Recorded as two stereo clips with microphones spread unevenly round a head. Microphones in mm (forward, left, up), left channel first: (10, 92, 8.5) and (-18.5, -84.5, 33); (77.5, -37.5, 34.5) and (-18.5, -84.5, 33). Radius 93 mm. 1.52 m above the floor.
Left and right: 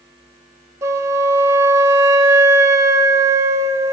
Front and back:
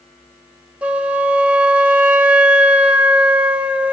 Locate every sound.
0.8 s a flute: 90° right, 1.2 m